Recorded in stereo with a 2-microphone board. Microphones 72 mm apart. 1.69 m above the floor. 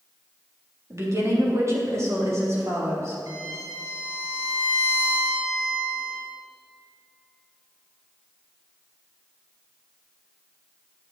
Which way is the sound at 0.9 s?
45° right (ahead or behind).